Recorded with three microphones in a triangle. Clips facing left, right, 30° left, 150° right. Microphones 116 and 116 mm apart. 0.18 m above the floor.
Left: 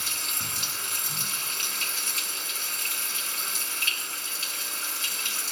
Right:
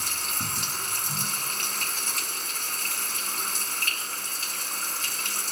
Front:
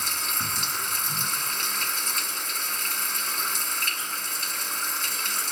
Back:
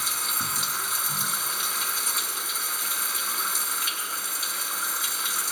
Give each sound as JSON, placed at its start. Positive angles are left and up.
{"t": 0.0, "sound": "running water", "azimuth_deg": -70, "distance_m": 1.6}